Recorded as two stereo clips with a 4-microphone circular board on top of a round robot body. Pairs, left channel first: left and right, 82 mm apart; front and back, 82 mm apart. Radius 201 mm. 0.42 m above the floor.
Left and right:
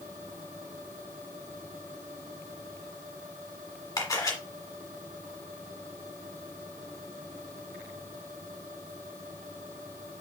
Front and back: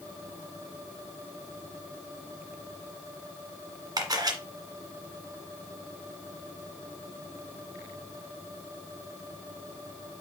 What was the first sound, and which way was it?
A camera shutter, 140° left.